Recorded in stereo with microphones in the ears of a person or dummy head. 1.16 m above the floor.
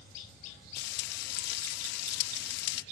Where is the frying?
65° left (ahead or behind).